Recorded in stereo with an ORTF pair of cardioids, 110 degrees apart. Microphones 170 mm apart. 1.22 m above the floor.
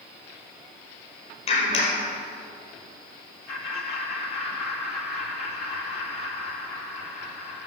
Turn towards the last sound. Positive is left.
turn(degrees=60)